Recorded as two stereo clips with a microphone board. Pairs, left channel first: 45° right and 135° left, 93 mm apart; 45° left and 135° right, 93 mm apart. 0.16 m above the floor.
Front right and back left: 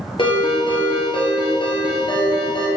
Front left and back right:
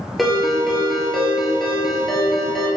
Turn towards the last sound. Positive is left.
turn(degrees=-45)